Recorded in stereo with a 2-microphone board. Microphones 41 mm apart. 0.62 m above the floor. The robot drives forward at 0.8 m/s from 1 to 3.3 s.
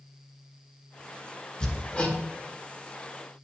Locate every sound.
1.6 s hammering: 20° left (ahead or behind), 1.6 m; by 2.2 s 30° left (ahead or behind), 1.2 m